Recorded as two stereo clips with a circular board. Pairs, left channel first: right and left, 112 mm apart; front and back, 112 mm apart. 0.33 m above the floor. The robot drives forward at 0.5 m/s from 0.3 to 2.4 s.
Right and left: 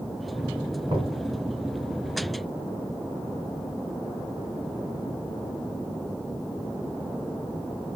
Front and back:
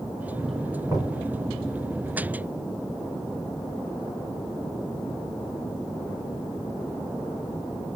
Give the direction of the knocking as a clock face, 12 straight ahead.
8 o'clock.